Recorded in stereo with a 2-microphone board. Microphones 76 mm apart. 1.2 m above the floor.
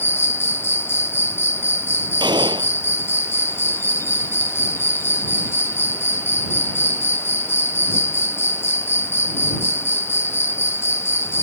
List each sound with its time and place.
0.0 s an insect: 30° left (ahead or behind)
2.2 s a gunshot: 70° right (ahead or behind)